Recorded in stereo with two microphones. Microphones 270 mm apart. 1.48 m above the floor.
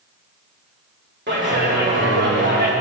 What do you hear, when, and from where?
1.3 s a clap: 40° right (ahead or behind), 3 m